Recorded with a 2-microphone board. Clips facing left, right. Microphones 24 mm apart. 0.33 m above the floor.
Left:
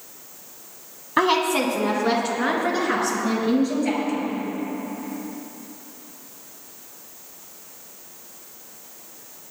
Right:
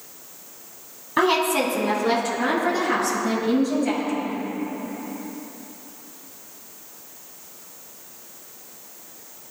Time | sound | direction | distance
1.2 | a woman speaking | 10° left (ahead or behind) | 2.0 m